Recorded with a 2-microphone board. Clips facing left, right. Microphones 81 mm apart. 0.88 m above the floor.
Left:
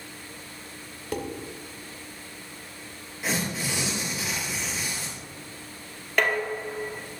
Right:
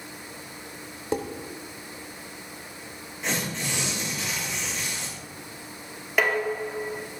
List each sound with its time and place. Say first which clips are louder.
1.1 s dishes clattering: right 3 dB; 25° right (ahead or behind), 1.9 m
3.2 s tearing paper: left 1 dB; 5° left (ahead or behind), 5.5 m
6.2 s dishes clattering: right 1 dB; 5° right (ahead or behind), 1.2 m